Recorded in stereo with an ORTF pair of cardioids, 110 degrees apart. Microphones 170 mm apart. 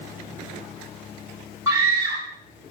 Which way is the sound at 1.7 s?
20° right.